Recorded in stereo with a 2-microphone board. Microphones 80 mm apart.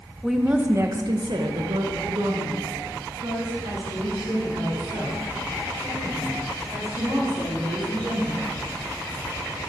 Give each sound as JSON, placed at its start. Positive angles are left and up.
{"t": 0.2, "sound": "a woman speaking", "side_deg": 0, "distance_m": 0.7}